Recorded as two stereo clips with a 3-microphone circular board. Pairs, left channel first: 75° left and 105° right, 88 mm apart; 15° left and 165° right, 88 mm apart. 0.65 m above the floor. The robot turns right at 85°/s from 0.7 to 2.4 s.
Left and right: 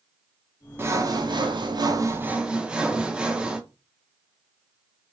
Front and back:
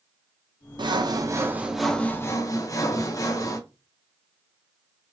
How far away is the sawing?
About 0.5 m.